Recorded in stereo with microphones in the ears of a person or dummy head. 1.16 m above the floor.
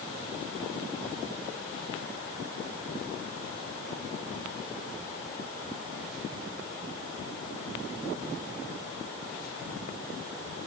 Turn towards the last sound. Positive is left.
No sound to turn to.